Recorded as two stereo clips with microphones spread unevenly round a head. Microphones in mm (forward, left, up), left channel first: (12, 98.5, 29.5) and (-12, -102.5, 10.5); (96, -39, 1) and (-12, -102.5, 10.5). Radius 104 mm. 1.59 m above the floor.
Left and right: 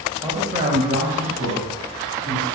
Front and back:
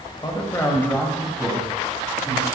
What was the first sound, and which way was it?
A man speaking, 25° right.